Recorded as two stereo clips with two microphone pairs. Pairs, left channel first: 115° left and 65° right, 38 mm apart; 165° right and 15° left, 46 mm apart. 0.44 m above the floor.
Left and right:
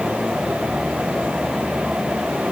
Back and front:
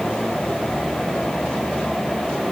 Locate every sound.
Only background noise.